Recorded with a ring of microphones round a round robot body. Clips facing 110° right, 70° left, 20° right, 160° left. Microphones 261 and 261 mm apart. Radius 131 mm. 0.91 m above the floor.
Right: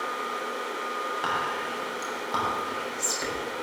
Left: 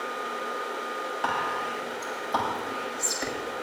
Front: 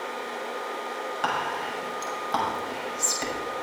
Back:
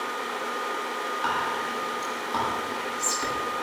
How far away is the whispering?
About 6.5 m.